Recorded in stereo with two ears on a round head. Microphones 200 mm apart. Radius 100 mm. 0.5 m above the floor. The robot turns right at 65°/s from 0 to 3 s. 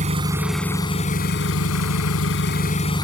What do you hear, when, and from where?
0.0 s an engine running: 35° right; by 3.0 s 160° left